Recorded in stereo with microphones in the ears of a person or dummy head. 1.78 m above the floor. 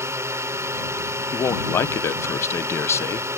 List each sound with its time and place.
0.0 s a drone: 15° right (ahead or behind)
1.3 s a man speaking: 15° left (ahead or behind)